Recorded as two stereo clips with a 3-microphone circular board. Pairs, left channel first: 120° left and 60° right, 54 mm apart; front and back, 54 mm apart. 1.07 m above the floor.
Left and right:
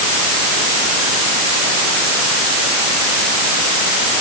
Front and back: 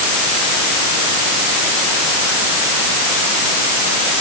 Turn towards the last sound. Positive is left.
No sound to turn to.